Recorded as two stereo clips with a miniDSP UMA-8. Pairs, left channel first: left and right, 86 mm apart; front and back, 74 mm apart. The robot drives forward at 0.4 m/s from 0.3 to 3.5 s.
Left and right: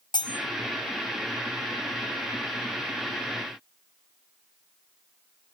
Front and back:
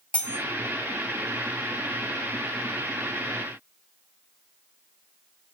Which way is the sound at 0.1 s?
70° left.